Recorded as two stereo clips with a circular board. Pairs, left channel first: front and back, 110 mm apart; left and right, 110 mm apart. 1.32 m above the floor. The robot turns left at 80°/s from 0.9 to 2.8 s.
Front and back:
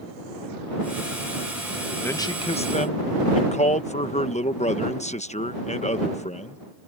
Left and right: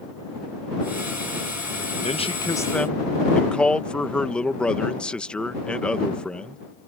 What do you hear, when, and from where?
2.0 s a man speaking: 70° left; by 6.6 s 10° left